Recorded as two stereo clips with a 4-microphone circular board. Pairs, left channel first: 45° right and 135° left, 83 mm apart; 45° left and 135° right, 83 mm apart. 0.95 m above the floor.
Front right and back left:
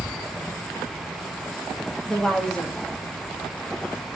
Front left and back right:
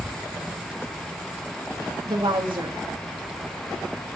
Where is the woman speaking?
125° right, 1.2 m.